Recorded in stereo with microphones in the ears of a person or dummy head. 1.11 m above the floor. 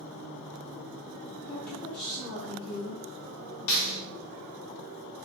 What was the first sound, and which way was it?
A woman speaking, 55° left (ahead or behind).